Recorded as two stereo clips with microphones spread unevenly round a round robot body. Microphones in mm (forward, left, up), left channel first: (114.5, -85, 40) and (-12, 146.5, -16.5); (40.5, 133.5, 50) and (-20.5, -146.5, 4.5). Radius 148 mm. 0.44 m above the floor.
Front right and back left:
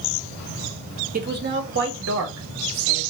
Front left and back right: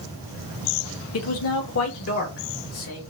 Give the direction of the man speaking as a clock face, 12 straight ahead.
9 o'clock.